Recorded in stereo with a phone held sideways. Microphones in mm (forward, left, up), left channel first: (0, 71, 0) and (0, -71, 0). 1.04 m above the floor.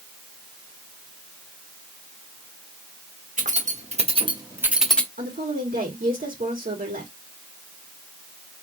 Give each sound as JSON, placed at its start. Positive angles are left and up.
{"t": 3.4, "sound": "keys jangling", "side_deg": -65, "distance_m": 1.7}
{"t": 5.2, "sound": "a woman speaking", "side_deg": -80, "distance_m": 2.0}